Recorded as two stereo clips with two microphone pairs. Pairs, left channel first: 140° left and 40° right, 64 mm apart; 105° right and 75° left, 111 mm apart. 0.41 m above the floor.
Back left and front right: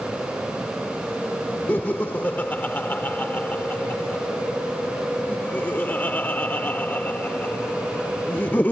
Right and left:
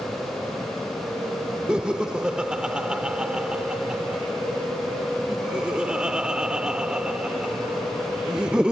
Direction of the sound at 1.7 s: 150° left.